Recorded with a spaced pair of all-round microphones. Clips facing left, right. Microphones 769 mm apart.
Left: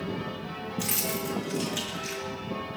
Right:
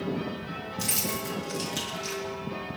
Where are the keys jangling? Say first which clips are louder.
Left 2 dB; 65° right (ahead or behind), 1.9 m.